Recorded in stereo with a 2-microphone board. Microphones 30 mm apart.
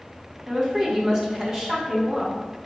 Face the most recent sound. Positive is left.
turn(degrees=-25)  # may be behind; listen again after turning